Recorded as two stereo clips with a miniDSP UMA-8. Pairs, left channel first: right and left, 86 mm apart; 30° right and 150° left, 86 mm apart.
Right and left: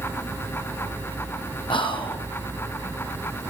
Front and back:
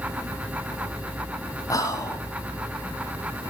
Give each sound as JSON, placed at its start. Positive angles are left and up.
{"t": 1.7, "sound": "whispering", "azimuth_deg": -80, "distance_m": 5.5}